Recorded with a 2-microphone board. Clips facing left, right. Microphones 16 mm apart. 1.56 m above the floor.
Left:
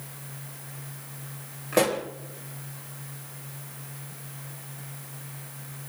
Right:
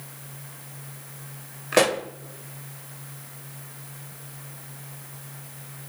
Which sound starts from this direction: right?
A pop, at 1.7 s.